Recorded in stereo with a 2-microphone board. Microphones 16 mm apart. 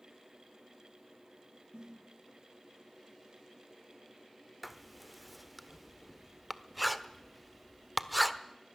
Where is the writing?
5° right (ahead or behind), 1.1 m.